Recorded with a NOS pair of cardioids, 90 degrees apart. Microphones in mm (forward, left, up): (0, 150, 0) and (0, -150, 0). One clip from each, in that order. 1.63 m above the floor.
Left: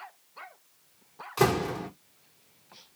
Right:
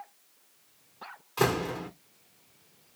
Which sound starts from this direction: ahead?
A door slam, at 1.4 s.